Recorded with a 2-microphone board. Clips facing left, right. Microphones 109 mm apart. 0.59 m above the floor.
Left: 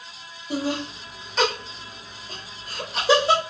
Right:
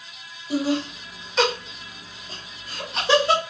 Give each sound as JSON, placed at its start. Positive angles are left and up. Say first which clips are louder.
{"t": 0.5, "sound": "laughter", "louder": "right 3 dB", "side_deg": -5, "distance_m": 1.4}